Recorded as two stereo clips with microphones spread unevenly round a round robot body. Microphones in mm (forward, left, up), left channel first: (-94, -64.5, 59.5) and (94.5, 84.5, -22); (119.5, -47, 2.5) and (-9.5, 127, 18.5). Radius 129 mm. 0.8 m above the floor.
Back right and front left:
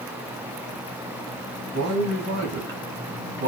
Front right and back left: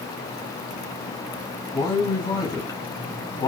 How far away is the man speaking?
About 1.0 m.